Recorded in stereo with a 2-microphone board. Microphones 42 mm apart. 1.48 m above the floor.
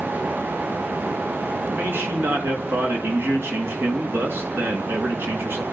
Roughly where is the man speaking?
Right.